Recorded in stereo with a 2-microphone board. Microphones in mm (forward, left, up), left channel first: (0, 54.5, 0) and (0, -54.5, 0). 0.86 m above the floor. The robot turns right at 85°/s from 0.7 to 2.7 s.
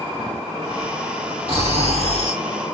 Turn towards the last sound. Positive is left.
turn(degrees=-5)